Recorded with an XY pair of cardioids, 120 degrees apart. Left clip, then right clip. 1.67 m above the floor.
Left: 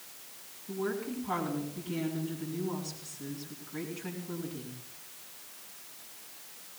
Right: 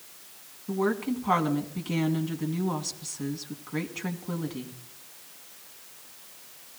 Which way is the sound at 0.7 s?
65° right.